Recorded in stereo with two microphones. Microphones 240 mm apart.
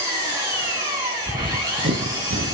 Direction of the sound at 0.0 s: 15° right (ahead or behind).